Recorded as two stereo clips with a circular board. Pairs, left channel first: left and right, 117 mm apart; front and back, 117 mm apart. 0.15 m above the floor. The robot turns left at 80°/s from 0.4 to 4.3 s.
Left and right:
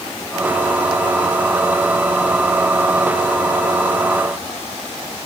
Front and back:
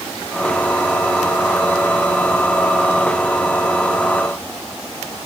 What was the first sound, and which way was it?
Only background noise.